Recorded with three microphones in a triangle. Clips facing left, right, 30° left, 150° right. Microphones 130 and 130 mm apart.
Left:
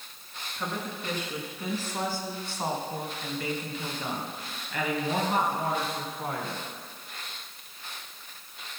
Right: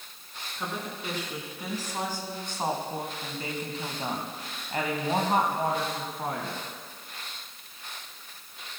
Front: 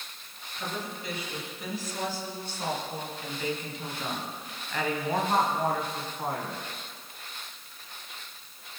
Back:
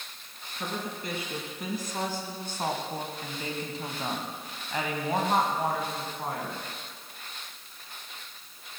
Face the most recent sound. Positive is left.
turn(degrees=-55)